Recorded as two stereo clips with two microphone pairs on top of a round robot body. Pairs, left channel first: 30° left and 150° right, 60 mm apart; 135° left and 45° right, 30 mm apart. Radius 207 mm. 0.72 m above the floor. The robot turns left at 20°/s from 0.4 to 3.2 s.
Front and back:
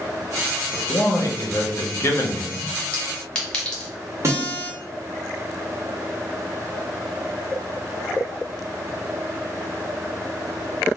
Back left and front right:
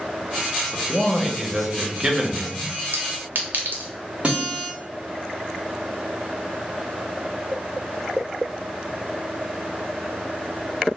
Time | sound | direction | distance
0.7 | a man speaking | 30° left | 0.9 m
2.9 | a clink | 40° right | 0.7 m
4.2 | a guitar | 100° right | 0.7 m